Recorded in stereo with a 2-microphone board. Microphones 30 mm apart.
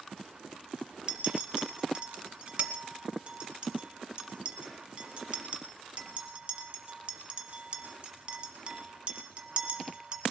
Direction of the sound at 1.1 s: 40° right (ahead or behind).